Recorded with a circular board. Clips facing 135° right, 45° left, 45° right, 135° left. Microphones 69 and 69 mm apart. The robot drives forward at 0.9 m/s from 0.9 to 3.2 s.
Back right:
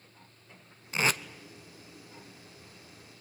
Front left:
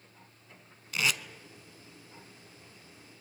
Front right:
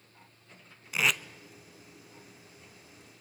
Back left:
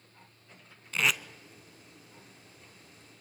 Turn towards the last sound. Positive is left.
turn(degrees=-175)